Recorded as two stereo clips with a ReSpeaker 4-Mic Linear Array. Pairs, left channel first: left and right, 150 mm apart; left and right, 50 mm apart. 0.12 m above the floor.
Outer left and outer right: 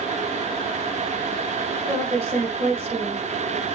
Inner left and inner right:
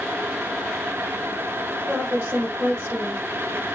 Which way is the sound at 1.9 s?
35° right (ahead or behind).